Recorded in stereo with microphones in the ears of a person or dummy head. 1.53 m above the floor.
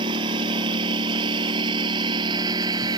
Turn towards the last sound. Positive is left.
turn(degrees=-25)  # may be behind; listen again after turning